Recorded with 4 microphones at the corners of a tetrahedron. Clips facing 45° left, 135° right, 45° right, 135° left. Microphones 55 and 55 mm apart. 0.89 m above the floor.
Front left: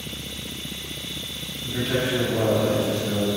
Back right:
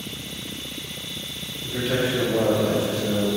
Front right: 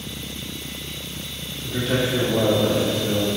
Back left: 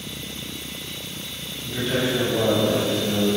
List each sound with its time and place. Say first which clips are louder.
1.6 s a man speaking: back right 1 dB, front right 1 dB; 50° right, 1.8 m